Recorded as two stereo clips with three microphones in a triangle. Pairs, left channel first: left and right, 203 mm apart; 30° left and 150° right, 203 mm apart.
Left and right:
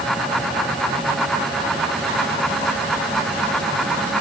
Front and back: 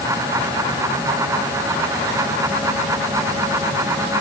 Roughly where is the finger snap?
No finger snap in this recording.